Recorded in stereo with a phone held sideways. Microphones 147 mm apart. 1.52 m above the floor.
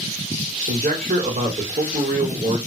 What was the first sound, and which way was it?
A man speaking, 85° right.